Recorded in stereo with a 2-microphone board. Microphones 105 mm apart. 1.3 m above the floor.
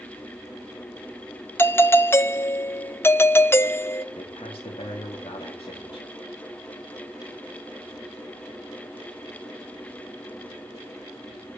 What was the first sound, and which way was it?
A doorbell, 25° left (ahead or behind).